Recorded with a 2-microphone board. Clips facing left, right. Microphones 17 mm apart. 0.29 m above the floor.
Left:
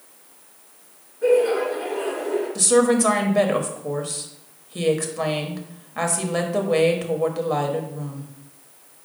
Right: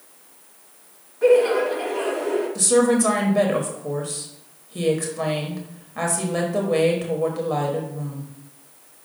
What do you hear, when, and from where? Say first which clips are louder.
1.2 s laughter: right 2 dB; 60° right (ahead or behind), 2.5 m
2.5 s a woman speaking: left 1 dB; 15° left (ahead or behind), 1.0 m